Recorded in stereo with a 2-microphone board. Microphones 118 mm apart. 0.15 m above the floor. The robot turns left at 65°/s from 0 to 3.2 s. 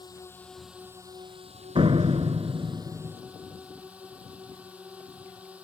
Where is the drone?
40° left; by 5.6 s 170° right.